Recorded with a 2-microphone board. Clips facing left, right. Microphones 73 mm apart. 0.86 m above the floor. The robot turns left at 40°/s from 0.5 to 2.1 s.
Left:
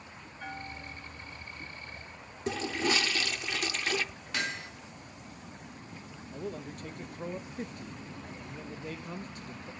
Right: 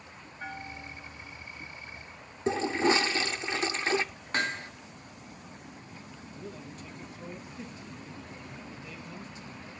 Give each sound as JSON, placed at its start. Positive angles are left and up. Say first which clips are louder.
{"t": 0.4, "sound": "a bell", "louder": "right 1 dB", "azimuth_deg": -145, "distance_m": 1.9}
{"t": 2.5, "sound": "a toilet flushing", "louder": "right 5 dB", "side_deg": -25, "distance_m": 0.5}
{"t": 4.3, "sound": "hammering", "louder": "right 4 dB", "side_deg": -35, "distance_m": 1.5}
{"t": 6.3, "sound": "a man speaking", "louder": "left 6 dB", "side_deg": 50, "distance_m": 0.8}